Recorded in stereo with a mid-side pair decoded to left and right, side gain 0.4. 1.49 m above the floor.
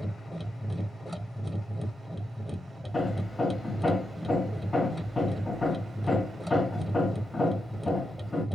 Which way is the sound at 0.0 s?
Straight ahead.